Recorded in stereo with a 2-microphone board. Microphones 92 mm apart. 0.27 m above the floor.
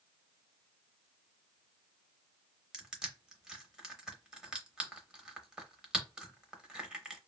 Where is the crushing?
10° right (ahead or behind), 0.7 m.